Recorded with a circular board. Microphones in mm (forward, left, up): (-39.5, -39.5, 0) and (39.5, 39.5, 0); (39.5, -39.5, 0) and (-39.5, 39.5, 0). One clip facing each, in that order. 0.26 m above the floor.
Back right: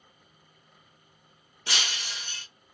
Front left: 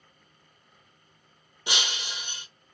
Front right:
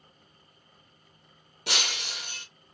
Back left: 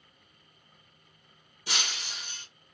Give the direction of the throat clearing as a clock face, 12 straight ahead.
I don't hear throat clearing.